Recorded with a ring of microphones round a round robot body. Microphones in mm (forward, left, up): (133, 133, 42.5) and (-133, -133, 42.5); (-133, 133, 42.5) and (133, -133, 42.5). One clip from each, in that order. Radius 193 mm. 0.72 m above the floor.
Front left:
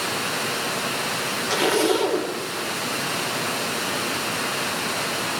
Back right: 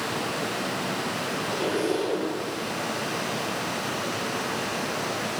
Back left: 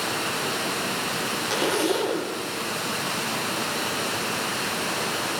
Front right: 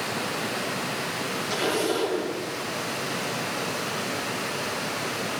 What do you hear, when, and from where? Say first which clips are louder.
0.0 s running water: front left 3 dB, back left 2 dB; 95° left, 5 m
1.5 s a zipper: front left 7 dB, back left 1 dB; 65° left, 3.5 m